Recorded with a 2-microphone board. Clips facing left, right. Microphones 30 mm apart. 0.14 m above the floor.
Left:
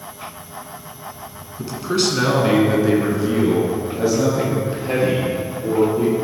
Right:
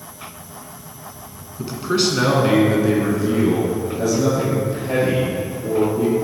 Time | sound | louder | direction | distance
1.6 | a man speaking | right 1 dB | 20° right (ahead or behind) | 1.2 m